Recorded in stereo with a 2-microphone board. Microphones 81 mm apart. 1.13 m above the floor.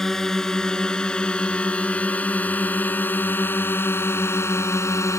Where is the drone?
5° left (ahead or behind); by 5.2 s 40° left (ahead or behind).